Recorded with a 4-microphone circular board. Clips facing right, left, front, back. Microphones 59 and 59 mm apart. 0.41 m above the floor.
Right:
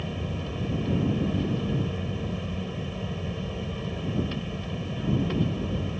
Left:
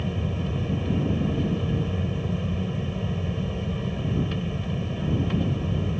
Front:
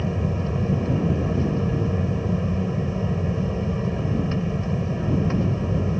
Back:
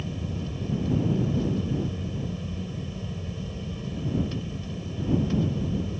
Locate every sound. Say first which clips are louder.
0.0 s an aircraft: left 4 dB, front 8 dB; 5° left